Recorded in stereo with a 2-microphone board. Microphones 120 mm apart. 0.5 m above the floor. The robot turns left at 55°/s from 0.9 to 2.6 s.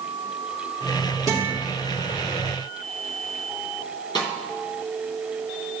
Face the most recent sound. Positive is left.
turn(degrees=40)  # may be behind; listen again after turning